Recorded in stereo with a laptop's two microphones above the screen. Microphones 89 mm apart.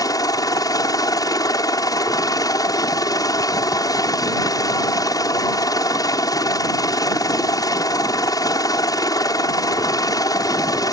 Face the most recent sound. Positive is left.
turn(degrees=45)  # may be behind; listen again after turning